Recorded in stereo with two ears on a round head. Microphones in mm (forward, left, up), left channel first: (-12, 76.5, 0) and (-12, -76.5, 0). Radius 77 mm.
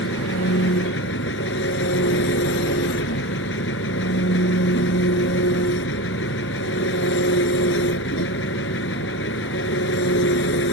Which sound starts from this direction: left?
An engine running, at 0.0 s.